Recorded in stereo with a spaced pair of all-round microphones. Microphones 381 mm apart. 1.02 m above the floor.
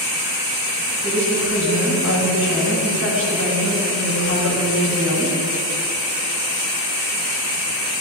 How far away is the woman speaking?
About 6 m.